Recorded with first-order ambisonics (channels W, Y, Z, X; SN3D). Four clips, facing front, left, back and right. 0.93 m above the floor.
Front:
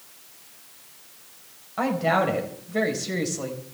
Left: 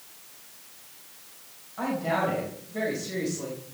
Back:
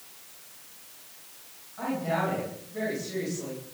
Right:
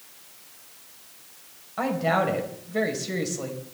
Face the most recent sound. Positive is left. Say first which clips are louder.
# right 3 dB, front 7 dB
turn(degrees=-35)